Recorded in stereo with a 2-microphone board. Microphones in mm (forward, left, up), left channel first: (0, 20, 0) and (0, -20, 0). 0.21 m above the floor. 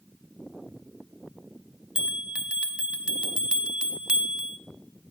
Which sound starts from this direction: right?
A bell, at 1.9 s.